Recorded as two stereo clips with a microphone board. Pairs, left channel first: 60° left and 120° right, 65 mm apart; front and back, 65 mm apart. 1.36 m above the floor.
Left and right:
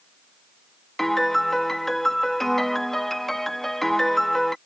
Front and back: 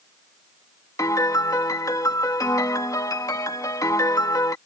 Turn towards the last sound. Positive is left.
turn(degrees=-25)